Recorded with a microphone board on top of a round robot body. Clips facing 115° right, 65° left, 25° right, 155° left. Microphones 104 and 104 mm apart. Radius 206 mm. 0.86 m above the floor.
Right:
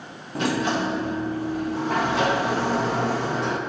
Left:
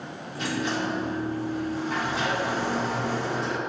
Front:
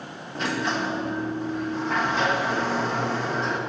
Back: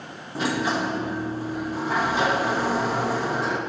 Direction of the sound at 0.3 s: 120° right.